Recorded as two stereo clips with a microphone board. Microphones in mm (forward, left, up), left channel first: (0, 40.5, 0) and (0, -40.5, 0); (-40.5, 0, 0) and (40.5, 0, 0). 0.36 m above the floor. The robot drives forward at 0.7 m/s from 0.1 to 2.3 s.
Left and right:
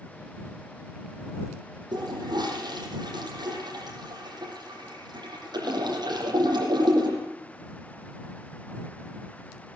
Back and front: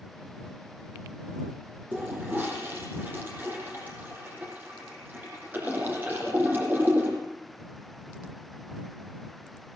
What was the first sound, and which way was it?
A toilet flushing, 65° right.